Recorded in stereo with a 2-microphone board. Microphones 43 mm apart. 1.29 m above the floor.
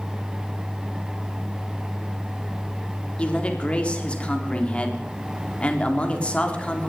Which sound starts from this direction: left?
A man speaking, at 3.2 s.